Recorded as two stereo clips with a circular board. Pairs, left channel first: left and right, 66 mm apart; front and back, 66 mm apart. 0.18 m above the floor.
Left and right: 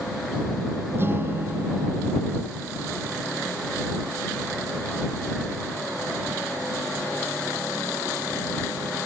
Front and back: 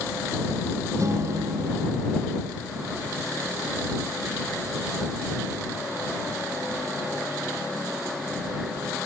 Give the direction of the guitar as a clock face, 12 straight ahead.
5 o'clock.